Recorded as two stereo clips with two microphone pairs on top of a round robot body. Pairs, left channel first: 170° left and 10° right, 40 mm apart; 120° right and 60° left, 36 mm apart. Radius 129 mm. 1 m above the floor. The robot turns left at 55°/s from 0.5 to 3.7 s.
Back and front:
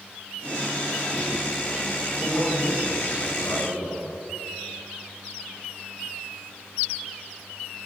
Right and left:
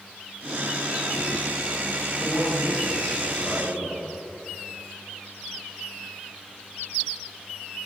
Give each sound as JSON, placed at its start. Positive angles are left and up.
{"t": 2.2, "sound": "a man speaking", "azimuth_deg": -120, "distance_m": 6.5}